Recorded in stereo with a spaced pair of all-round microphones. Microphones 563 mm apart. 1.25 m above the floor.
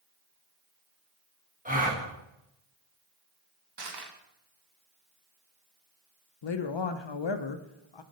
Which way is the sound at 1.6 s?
15° right (ahead or behind).